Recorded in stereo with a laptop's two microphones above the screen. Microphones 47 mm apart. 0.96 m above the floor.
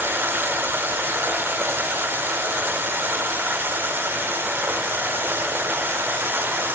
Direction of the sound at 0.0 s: 50° right (ahead or behind).